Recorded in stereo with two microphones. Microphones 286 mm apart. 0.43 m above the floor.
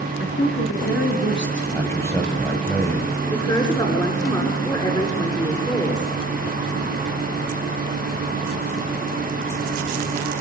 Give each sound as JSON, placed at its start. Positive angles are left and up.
{"t": 0.2, "sound": "a woman speaking", "side_deg": 40, "distance_m": 7.0}
{"t": 1.7, "sound": "a man speaking", "side_deg": 10, "distance_m": 6.5}
{"t": 3.3, "sound": "a woman speaking", "side_deg": 15, "distance_m": 7.0}